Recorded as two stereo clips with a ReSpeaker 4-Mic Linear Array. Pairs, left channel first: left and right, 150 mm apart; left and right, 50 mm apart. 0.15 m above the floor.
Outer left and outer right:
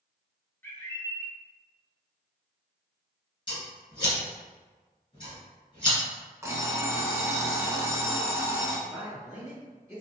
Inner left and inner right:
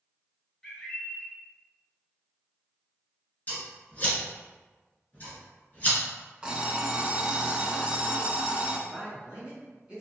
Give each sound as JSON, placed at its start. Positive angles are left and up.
{"t": 0.6, "sound": "a bird", "side_deg": 15, "distance_m": 0.8}
{"t": 3.5, "sound": "scissors", "side_deg": 35, "distance_m": 1.6}
{"t": 6.4, "sound": "an alarm clock", "side_deg": -20, "distance_m": 0.5}
{"t": 8.9, "sound": "a man speaking", "side_deg": -20, "distance_m": 1.7}